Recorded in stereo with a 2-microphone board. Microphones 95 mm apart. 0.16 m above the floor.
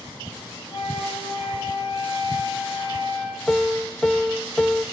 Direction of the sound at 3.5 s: 5° left (ahead or behind).